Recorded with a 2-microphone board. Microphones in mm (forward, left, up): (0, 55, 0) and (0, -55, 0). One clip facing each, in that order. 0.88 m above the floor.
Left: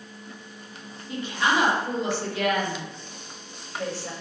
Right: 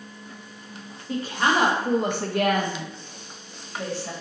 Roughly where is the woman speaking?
Right.